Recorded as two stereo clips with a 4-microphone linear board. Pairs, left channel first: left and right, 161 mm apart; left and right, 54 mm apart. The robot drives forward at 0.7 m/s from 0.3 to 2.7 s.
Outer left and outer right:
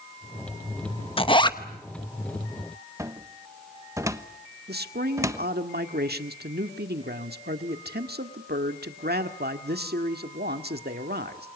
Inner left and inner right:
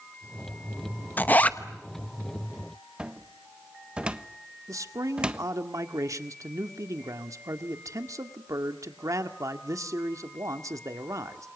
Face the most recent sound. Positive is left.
turn(degrees=-85)